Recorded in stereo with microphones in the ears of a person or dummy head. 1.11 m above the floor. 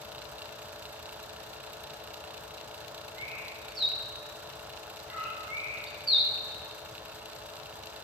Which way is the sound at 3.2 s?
Centre (ahead or behind).